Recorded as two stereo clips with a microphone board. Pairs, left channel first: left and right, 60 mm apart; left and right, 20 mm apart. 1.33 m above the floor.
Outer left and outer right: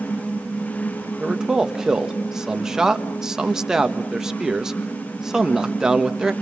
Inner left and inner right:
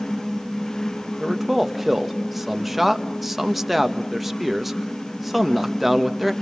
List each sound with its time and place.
1.2 s a man speaking: 10° right (ahead or behind), 1.4 m